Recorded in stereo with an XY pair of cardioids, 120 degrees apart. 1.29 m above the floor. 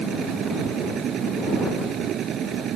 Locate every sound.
0.0 s a machine running: 60° right